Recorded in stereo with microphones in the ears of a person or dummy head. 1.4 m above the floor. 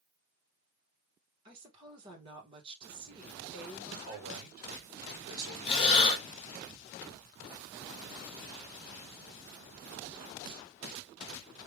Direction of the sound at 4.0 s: 55° right (ahead or behind).